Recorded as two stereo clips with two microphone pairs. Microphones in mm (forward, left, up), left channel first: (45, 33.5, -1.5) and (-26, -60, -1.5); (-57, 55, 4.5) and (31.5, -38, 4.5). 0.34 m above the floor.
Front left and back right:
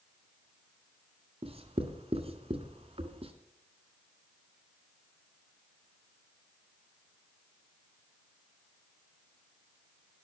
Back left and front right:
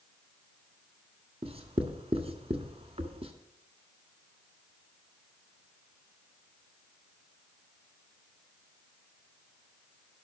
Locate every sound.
1.4 s writing: 90° right, 1.7 m